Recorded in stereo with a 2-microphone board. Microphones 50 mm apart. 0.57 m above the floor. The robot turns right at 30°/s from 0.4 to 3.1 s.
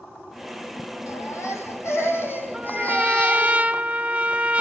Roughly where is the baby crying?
Left.